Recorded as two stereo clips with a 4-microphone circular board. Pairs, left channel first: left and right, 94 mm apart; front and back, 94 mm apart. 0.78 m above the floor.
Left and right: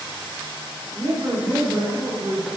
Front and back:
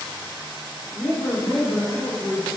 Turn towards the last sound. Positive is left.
turn(degrees=-80)